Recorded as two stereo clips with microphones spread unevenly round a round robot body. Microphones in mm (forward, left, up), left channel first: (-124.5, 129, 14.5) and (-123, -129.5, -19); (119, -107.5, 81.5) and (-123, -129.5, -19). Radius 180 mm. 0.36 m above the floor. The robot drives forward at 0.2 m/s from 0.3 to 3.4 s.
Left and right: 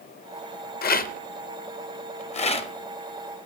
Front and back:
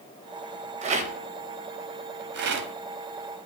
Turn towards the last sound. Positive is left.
turn(degrees=165)